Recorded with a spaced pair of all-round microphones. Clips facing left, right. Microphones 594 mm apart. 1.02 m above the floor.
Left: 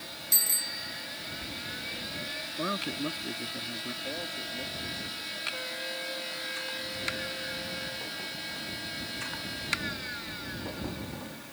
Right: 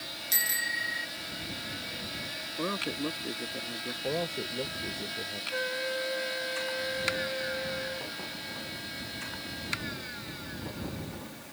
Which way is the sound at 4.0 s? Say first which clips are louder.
Right 7 dB; 80° right.